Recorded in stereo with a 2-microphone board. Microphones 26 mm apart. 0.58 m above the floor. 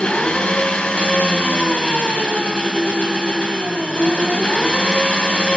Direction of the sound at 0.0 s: 50° left (ahead or behind).